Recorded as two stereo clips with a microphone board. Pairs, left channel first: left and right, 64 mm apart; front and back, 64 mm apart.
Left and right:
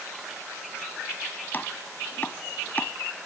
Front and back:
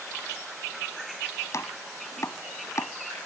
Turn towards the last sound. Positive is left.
turn(degrees=35)